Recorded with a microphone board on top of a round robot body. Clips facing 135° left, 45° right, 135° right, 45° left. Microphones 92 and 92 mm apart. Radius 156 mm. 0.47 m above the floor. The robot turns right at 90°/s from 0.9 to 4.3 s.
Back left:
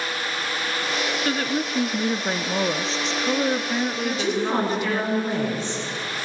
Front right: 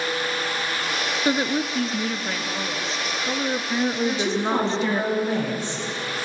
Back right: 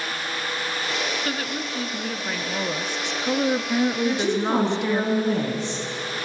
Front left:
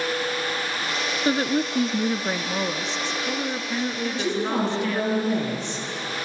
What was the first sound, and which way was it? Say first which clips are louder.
A woman speaking: front right 5 dB, front left 6 dB; 5° left.